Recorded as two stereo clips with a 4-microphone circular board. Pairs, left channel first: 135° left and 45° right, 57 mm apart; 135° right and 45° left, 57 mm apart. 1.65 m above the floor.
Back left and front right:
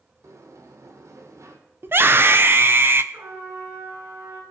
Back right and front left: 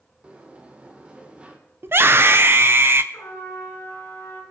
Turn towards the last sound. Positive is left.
turn(degrees=-90)